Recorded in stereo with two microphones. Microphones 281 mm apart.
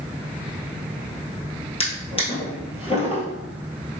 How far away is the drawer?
About 1.4 m.